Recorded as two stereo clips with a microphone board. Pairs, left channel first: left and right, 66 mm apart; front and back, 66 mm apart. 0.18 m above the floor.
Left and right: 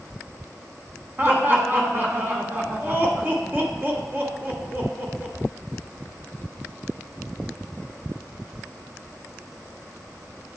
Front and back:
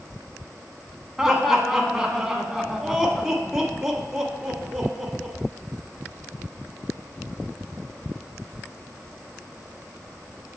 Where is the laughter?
100° right, 1.2 m.